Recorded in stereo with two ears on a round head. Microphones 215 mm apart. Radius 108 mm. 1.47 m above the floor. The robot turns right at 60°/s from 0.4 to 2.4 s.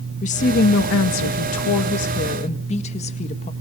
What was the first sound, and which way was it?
A woman speaking, 30° left.